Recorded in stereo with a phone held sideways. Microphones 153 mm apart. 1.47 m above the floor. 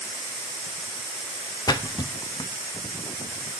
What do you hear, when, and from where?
1.7 s a splash: 25° left (ahead or behind), 0.6 m